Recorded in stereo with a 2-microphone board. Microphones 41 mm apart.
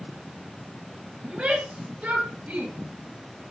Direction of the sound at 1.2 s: 30° right (ahead or behind).